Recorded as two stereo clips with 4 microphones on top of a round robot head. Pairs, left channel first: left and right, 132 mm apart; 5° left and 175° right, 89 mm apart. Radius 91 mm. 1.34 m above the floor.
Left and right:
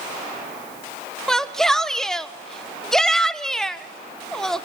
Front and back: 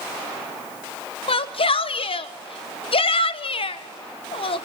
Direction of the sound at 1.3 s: 5° left.